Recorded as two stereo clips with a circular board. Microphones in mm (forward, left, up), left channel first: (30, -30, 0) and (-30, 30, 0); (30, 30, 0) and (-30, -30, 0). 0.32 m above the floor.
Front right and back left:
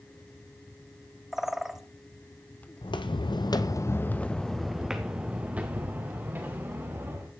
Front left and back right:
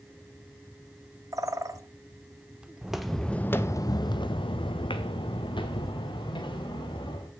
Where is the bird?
140° right, 0.7 m.